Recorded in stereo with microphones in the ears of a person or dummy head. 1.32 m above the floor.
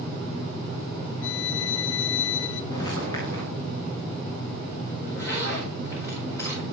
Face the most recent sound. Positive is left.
turn(degrees=15)  # may be behind; listen again after turning